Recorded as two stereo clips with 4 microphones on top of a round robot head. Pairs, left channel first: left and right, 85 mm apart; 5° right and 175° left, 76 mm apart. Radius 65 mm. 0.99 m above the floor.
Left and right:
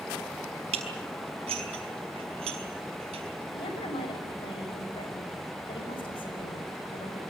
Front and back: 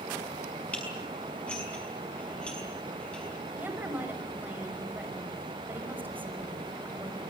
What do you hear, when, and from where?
0.7 s dishes clattering: 85° right, 5.5 m
3.5 s a woman speaking: 110° left, 6 m